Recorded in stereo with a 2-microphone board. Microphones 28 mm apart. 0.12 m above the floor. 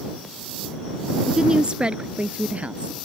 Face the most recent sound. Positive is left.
turn(degrees=-50)  # may be behind; listen again after turning